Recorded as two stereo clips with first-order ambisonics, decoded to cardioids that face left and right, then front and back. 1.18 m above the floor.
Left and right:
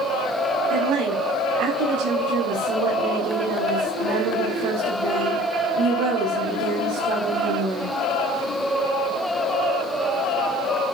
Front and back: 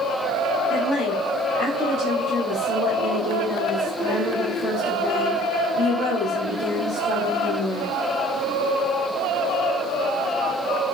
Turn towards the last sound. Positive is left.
turn(degrees=-65)